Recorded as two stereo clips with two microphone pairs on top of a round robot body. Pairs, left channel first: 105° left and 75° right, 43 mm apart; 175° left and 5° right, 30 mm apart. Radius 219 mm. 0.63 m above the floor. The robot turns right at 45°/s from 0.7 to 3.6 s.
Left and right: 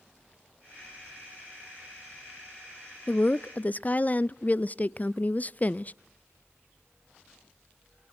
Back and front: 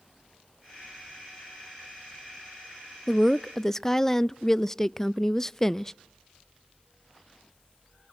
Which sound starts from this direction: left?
A woman speaking, at 3.1 s.